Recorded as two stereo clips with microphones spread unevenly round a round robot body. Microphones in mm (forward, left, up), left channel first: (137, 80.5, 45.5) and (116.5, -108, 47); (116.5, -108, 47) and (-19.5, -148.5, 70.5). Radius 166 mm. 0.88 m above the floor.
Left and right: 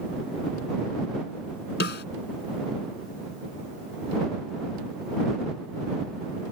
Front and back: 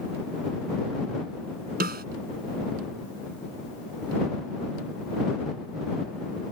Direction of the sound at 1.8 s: 145° left.